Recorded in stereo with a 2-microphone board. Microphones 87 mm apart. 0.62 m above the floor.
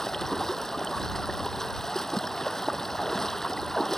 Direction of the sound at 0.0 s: 5° left (ahead or behind).